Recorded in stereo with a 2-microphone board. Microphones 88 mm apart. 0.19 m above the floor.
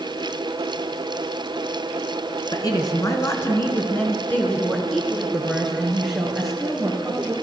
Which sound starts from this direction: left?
A woman speaking, at 2.5 s.